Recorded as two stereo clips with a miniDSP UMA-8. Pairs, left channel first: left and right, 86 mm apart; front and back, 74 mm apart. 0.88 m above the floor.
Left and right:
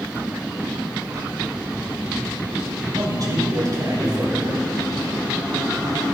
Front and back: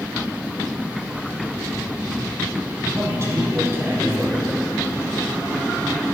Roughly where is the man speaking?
Behind right.